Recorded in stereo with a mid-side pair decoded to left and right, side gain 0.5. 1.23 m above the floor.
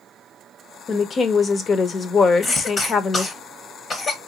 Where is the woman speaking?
40° left, 0.9 m.